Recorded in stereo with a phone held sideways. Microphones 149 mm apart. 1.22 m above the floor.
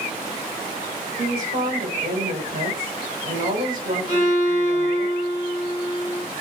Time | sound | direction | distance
1.2 | a woman speaking | 65° right (ahead or behind) | 3 m
4.1 | a violin | 70° right (ahead or behind) | 2.5 m